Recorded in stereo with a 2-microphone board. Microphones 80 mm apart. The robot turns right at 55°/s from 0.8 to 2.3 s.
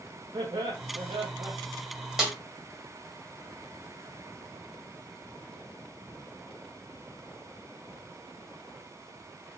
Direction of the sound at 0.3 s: 105° right.